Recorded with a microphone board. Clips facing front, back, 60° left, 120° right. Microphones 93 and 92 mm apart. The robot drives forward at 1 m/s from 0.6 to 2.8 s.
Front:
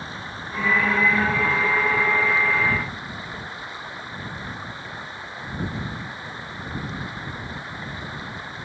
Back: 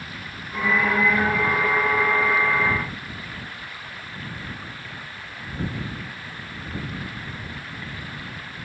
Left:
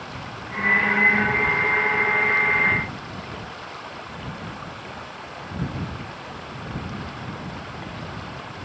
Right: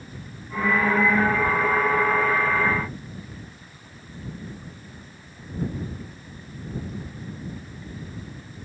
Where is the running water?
65° left; by 8.7 s 70° left.